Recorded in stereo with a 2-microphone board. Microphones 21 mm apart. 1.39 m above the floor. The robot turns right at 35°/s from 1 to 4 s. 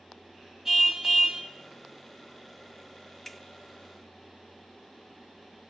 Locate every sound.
0.7 s a car horn: 30° right (ahead or behind), 6 m; by 1.4 s 45° right (ahead or behind), 6 m
3.2 s a finger snap: 5° left (ahead or behind), 1.9 m; by 3.4 s centre (ahead or behind), 1.9 m